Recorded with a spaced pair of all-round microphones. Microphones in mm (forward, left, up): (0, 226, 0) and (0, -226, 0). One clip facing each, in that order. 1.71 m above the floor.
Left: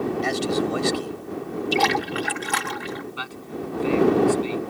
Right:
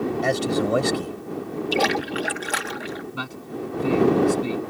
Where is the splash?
15° left (ahead or behind).